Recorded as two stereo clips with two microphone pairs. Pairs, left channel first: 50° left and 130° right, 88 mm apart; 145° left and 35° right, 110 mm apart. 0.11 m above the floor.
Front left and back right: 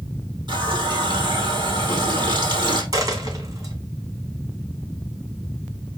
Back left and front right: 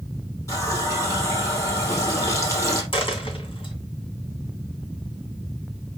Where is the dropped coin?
175° right, 2.5 m.